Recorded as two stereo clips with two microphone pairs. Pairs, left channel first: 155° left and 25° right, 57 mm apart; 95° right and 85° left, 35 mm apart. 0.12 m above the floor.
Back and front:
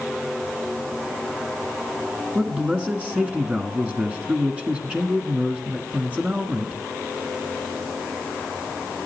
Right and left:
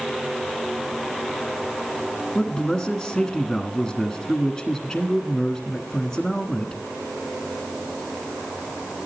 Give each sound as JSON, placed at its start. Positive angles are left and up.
{"t": 2.4, "sound": "a man speaking", "azimuth_deg": -45, "distance_m": 1.1}